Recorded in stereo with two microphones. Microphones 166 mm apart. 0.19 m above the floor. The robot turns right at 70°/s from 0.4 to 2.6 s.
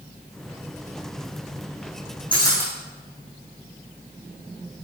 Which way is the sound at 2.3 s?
30° left (ahead or behind).